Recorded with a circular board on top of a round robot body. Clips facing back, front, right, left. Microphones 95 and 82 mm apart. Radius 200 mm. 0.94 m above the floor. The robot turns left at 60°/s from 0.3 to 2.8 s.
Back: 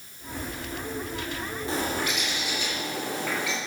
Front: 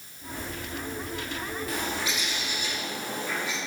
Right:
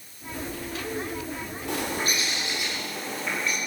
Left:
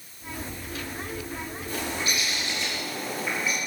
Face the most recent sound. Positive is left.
turn(degrees=175)